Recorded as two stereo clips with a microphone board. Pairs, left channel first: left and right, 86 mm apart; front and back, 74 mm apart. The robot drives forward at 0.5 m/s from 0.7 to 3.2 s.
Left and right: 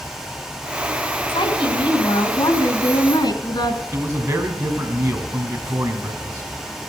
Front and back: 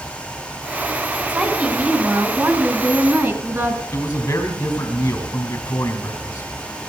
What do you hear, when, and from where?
1.3 s a woman speaking: 110° left, 2.5 m; by 3.8 s 130° left, 3 m
3.9 s a man speaking: 55° right, 3 m